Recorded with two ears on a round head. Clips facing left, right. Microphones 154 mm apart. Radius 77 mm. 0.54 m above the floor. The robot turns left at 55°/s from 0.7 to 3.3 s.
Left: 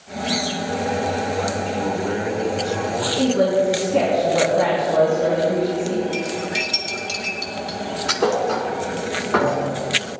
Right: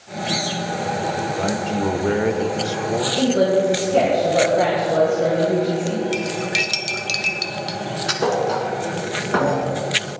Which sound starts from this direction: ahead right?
A man speaking, at 1.4 s.